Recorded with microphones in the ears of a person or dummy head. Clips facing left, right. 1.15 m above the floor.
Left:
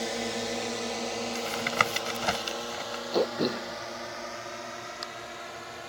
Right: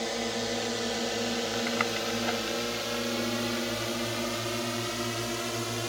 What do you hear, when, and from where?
0.0 s a drone: centre (ahead or behind); by 5.9 s 55° right (ahead or behind)
1.4 s tapping: 60° left (ahead or behind)
3.1 s throat clearing: 75° left (ahead or behind)